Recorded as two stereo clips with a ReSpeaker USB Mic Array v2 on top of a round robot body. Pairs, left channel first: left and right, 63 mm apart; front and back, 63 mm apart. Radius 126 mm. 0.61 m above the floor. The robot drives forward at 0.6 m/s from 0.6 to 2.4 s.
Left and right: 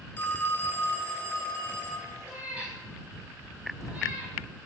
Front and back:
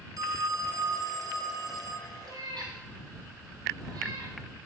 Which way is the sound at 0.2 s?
160° left.